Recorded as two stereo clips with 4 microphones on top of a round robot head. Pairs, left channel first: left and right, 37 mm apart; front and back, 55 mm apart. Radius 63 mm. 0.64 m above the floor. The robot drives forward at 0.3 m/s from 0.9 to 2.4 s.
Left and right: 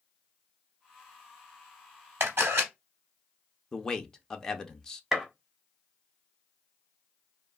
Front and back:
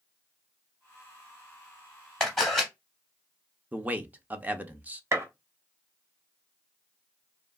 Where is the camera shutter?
80° right, 0.7 m; by 2.7 s 90° right, 0.7 m.